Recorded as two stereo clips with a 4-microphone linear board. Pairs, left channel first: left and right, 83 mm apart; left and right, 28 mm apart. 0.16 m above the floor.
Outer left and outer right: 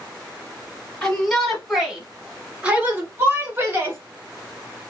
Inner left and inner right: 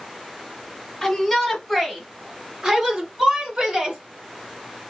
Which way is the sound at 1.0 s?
10° left (ahead or behind).